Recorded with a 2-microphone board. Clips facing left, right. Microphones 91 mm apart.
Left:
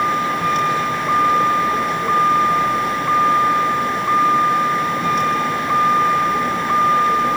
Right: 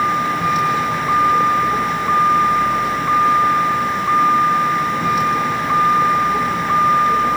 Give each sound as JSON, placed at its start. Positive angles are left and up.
{"t": 0.0, "sound": "a vehicle", "side_deg": -5}